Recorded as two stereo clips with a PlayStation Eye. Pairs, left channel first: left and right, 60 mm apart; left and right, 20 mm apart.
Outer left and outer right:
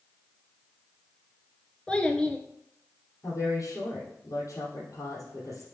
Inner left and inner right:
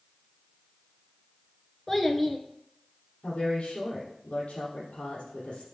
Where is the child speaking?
20° left (ahead or behind), 1.1 m.